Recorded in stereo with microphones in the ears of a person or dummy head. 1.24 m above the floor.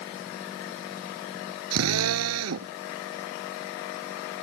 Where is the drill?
85° right.